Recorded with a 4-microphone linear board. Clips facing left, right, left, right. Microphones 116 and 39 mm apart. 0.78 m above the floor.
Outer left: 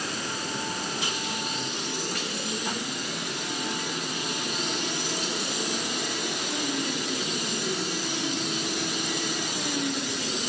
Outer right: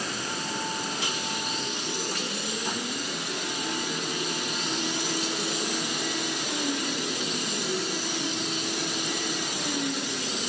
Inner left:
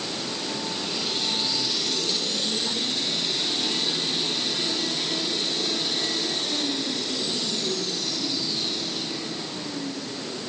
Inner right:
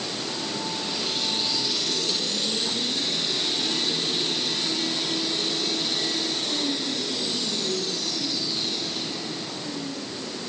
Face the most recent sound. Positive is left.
No sound to turn to.